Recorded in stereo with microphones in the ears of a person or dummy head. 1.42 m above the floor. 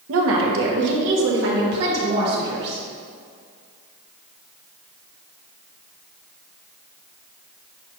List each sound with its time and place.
0.1 s a woman speaking: 85° right, 1.3 m; by 2.8 s 55° right (ahead or behind), 3 m